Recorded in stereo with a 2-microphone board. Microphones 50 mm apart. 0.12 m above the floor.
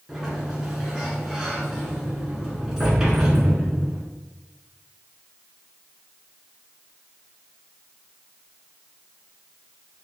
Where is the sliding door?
10° right (ahead or behind), 1.0 m.